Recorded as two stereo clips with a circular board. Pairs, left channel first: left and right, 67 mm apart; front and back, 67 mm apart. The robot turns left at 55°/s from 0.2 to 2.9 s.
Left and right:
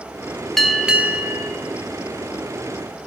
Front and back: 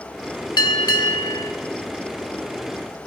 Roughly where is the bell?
Ahead.